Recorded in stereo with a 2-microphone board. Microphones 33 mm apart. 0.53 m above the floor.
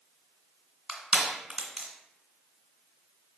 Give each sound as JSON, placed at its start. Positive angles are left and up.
{"t": 0.9, "sound": "crushing", "side_deg": -35, "distance_m": 1.7}